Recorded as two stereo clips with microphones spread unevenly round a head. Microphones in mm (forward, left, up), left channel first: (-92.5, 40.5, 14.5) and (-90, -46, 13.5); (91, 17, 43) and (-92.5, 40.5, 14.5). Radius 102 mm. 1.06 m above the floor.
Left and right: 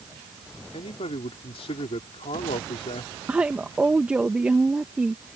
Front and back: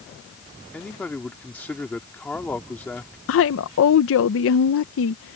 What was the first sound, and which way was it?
A man speaking, 75° left.